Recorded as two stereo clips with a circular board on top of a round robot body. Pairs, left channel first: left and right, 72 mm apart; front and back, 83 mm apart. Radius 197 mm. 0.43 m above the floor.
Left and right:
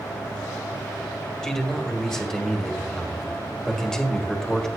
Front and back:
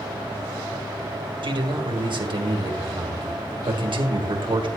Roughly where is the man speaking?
Behind.